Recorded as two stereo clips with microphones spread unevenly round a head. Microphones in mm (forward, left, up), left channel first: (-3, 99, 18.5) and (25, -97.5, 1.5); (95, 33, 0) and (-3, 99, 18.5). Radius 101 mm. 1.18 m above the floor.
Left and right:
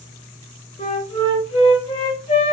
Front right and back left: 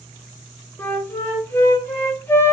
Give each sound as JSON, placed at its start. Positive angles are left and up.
{"t": 0.8, "sound": "a flute", "azimuth_deg": 45, "distance_m": 1.5}